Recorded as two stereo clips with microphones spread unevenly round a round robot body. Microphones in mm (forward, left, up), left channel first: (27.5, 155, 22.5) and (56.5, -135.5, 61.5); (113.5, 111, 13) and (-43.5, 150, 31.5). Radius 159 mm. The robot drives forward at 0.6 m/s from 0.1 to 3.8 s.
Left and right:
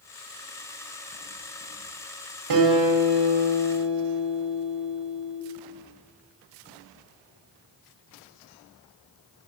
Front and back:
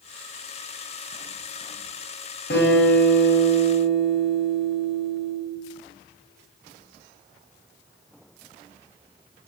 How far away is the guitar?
About 2.5 m.